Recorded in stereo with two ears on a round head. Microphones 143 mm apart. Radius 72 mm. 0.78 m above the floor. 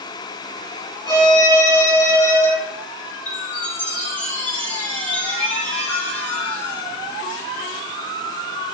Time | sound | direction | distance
1.1 | a violin | 25° left (ahead or behind) | 3 m
3.3 | a chime | 10° left (ahead or behind) | 4 m